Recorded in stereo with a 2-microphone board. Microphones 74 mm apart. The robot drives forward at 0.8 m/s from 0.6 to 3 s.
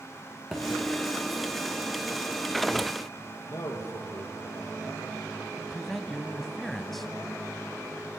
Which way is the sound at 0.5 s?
Centre (ahead or behind).